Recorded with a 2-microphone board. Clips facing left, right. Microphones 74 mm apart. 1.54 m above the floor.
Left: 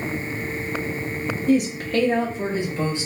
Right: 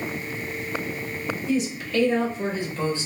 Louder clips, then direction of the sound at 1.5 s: Left 6 dB; 60° left (ahead or behind).